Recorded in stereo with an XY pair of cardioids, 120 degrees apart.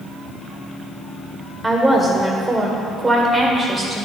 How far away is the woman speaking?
About 1.8 m.